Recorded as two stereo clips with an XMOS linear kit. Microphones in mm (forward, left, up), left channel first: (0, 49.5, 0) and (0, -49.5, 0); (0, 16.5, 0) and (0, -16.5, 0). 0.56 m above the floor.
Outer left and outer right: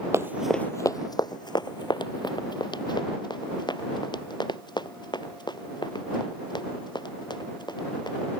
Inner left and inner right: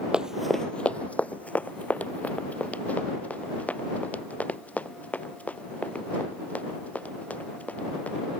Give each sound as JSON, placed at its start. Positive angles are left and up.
{"t": 0.1, "sound": "running footsteps", "side_deg": -30}